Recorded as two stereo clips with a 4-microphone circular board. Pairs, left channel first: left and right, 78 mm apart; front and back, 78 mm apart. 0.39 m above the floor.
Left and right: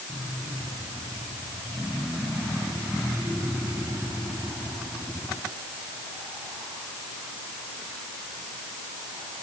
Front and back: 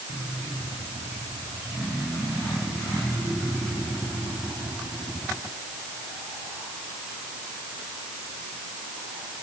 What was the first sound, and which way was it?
Only background noise.